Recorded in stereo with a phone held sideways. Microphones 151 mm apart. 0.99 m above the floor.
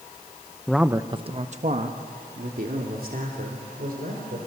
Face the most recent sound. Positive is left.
turn(degrees=-70)  # may be behind; listen again after turning